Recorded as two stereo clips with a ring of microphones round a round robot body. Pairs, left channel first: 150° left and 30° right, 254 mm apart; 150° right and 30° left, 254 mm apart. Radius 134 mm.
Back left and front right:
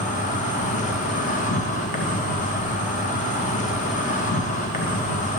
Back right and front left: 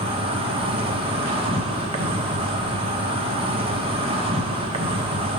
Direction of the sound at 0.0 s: 95° left.